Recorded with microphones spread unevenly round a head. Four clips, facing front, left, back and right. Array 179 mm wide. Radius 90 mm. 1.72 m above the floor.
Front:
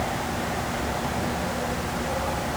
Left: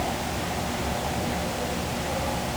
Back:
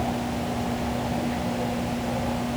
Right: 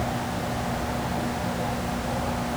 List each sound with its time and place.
Only background noise.